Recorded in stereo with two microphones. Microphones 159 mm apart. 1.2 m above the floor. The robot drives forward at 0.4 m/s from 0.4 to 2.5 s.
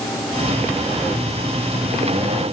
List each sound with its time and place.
Only background noise.